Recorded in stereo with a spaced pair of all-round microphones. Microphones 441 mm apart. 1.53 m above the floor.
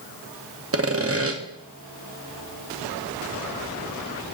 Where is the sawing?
35° right (ahead or behind), 0.6 m.